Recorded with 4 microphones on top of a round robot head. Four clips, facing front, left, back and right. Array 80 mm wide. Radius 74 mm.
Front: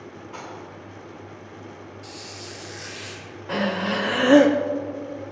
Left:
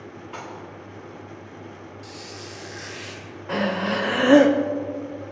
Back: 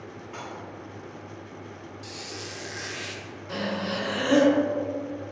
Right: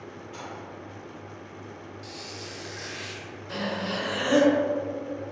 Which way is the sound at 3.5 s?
55° left.